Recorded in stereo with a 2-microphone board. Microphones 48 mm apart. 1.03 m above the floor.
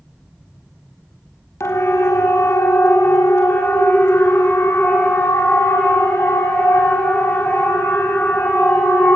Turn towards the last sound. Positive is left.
turn(degrees=60)  # may be behind; listen again after turning